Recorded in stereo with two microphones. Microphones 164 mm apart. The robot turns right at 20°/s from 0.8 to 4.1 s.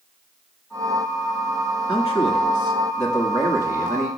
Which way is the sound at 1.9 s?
30° left (ahead or behind).